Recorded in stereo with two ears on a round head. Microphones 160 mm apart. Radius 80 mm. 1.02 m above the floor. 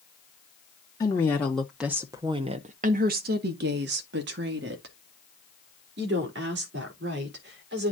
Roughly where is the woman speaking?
Centre.